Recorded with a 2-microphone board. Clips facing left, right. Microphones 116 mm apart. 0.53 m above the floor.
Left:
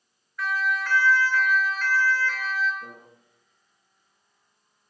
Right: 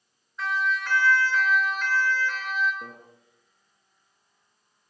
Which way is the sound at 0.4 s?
20° right (ahead or behind).